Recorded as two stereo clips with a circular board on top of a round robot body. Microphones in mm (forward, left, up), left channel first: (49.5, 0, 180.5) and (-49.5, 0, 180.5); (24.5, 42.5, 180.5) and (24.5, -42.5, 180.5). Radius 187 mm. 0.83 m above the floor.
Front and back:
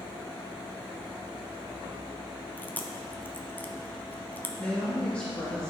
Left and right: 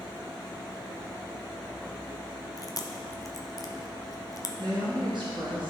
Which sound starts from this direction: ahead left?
Chewing, at 2.6 s.